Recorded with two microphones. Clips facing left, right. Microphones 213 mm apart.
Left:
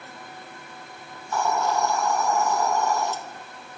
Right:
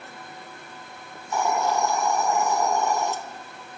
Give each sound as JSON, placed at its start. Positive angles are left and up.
{"t": 1.1, "sound": "a hiss", "side_deg": -15, "distance_m": 0.7}